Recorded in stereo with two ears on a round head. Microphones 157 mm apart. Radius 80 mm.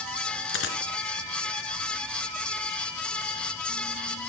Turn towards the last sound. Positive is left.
turn(degrees=80)